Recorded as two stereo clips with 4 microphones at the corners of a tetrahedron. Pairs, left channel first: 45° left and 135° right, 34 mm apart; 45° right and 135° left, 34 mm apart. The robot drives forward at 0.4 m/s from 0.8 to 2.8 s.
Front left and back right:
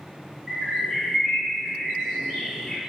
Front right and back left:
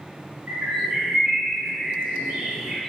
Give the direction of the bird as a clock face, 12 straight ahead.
7 o'clock.